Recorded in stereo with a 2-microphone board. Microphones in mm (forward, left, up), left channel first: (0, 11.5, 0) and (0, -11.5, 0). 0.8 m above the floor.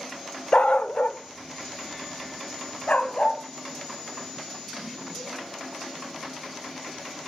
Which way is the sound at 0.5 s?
55° left (ahead or behind).